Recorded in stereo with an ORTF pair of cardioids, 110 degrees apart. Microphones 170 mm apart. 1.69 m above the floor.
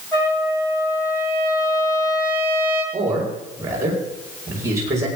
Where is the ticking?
I don't hear ticking.